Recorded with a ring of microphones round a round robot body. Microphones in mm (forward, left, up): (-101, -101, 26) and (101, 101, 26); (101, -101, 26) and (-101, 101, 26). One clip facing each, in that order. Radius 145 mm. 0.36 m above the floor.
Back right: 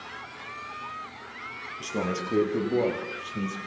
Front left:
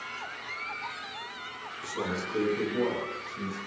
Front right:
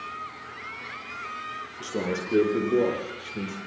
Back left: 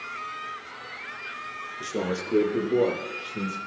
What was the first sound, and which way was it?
A man speaking, 130° right.